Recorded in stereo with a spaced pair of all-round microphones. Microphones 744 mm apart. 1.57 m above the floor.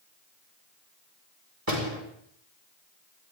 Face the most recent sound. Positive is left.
turn(degrees=-25)  # may be behind; listen again after turning